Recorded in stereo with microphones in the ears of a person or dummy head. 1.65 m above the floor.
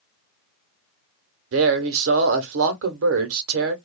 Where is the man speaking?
65° right (ahead or behind), 0.8 m.